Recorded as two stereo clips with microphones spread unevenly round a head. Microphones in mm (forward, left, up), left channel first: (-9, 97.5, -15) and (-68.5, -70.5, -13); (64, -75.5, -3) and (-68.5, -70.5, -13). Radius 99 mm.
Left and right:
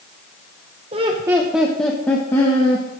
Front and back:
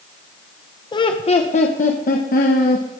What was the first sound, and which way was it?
Laughter, 55° right.